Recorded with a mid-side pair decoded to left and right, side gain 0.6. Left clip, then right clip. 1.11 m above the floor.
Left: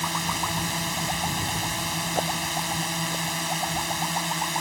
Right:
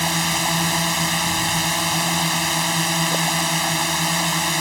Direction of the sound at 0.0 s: 40° right.